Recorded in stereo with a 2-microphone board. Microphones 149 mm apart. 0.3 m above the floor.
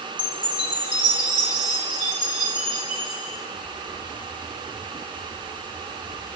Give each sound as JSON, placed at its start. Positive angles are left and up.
{"t": 0.2, "sound": "a chime", "side_deg": -5, "distance_m": 5.0}